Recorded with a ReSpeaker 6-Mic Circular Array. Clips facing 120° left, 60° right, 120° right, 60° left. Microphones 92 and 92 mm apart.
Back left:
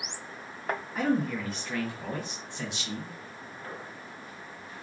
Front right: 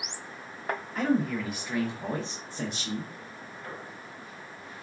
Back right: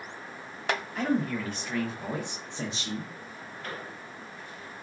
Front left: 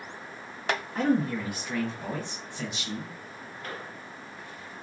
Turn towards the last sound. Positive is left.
turn(degrees=-85)